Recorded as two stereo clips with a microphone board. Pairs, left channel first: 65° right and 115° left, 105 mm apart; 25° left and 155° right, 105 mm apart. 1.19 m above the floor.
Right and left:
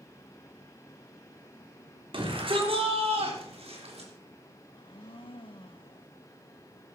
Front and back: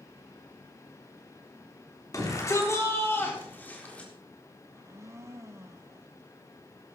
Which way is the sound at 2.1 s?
80° left.